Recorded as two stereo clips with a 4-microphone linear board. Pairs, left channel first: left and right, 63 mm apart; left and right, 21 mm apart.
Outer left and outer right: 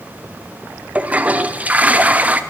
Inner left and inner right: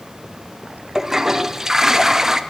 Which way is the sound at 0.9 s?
25° right (ahead or behind).